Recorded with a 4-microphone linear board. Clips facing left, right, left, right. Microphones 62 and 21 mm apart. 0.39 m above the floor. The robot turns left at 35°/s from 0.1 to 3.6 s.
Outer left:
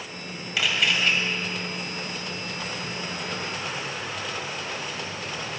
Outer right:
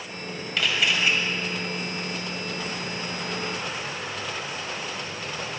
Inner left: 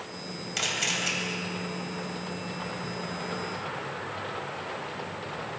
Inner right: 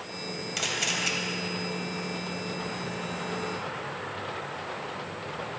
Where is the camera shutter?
5° left (ahead or behind), 2.5 m; by 1.1 s 10° right (ahead or behind), 2.5 m.